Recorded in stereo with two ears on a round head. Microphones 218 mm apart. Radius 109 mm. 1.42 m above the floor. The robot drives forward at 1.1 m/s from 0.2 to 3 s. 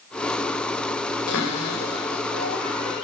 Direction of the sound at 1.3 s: 70° left (ahead or behind).